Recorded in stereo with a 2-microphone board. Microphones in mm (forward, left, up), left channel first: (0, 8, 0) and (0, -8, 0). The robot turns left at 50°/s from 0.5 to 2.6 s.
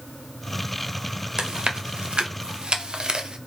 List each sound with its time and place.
1.4 s chewing: 40° right (ahead or behind), 0.6 m; by 3.4 s 55° right (ahead or behind), 0.6 m